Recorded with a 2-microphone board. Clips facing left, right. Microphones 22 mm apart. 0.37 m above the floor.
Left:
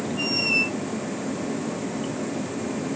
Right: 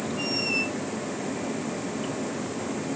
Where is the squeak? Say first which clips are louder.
Left 5 dB; 15° left (ahead or behind).